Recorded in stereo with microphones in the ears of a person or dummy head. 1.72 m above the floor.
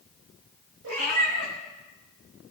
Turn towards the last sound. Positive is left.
turn(degrees=-60)  # may be behind; listen again after turning